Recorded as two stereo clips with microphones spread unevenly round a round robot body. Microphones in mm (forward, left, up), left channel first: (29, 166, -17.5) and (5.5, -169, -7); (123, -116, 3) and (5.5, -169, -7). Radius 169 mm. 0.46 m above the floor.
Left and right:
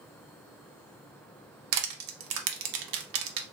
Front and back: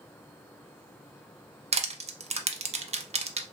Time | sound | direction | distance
1.7 | crushing | 115° right | 0.7 m